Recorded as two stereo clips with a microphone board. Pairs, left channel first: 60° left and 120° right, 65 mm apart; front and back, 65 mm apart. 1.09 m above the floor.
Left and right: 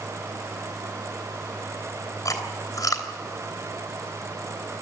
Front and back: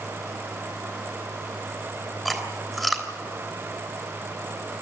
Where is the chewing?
85° left, 3 m.